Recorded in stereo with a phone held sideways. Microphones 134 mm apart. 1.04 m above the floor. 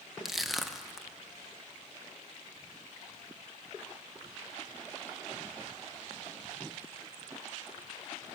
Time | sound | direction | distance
0.2 | crushing | centre (ahead or behind) | 0.6 m